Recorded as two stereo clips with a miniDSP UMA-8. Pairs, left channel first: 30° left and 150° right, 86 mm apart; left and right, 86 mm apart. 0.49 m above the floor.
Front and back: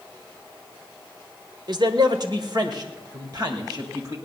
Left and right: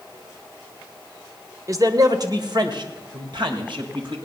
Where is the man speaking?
135° right, 1.2 m; by 4.2 s 110° right, 2.5 m.